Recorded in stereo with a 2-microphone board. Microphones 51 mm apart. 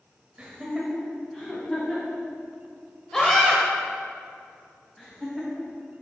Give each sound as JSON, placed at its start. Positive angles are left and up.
{"t": 0.4, "sound": "laughter", "side_deg": -25, "distance_m": 0.9}
{"t": 3.1, "sound": "a scream", "side_deg": 10, "distance_m": 0.9}
{"t": 5.0, "sound": "laughter", "side_deg": 5, "distance_m": 2.5}